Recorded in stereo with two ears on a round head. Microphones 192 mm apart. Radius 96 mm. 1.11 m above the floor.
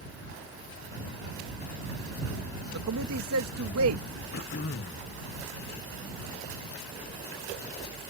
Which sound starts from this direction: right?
A man speaking, at 2.7 s.